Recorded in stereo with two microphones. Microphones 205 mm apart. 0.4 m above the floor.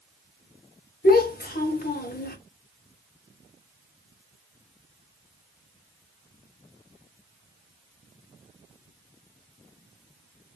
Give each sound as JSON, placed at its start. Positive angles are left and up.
{"t": 1.0, "sound": "a child speaking", "side_deg": 45, "distance_m": 0.8}